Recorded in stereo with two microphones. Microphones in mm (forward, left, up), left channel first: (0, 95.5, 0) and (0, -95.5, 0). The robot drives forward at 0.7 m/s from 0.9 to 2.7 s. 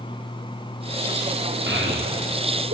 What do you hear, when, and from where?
1.7 s a child speaking: 70° right (ahead or behind), 8.5 m; by 2.8 s 75° right (ahead or behind), 8.5 m